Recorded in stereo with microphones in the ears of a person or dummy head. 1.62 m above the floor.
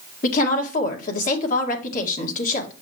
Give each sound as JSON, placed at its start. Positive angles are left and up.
{"t": 0.2, "sound": "a woman speaking", "side_deg": 50, "distance_m": 1.8}